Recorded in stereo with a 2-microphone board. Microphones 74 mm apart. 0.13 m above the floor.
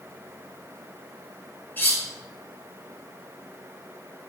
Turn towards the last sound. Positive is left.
turn(degrees=25)  # may be behind; listen again after turning